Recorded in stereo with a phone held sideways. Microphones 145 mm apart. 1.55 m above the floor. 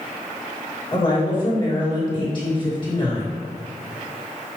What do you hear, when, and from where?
0.9 s a woman speaking: 35° left (ahead or behind), 2.5 m